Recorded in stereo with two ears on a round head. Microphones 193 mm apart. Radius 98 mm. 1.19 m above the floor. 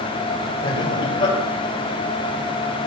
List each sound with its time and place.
0.6 s laughter: 25° left (ahead or behind), 4 m